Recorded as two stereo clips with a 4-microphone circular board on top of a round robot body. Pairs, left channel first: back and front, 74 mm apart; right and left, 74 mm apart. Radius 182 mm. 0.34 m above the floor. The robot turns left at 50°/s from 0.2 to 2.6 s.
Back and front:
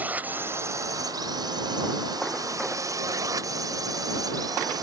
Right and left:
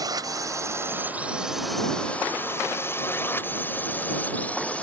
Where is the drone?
65° left; by 4.8 s 20° right.